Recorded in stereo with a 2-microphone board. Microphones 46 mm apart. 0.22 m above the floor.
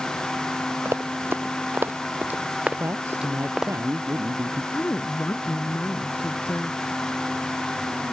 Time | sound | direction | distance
0.8 | running footsteps | 75° right (ahead or behind) | ?
2.8 | a man speaking | 70° right (ahead or behind) | ?
4.7 | a woman speaking | 55° left (ahead or behind) | ?